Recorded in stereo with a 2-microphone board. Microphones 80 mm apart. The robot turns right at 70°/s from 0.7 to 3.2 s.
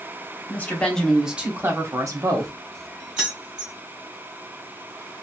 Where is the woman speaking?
155° left, 0.9 m; by 2.5 s 80° right, 0.9 m.